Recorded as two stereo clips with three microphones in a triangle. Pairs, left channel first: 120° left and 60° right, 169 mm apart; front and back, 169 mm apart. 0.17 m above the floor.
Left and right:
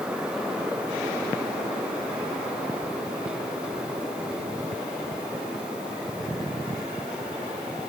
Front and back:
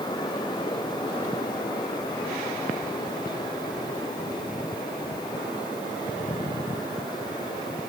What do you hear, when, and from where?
Only background noise.